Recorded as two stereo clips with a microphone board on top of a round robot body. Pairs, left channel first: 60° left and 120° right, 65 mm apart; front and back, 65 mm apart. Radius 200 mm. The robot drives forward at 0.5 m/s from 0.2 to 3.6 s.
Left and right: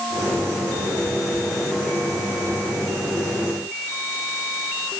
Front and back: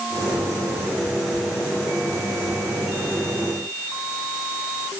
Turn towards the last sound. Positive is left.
No sound to turn to.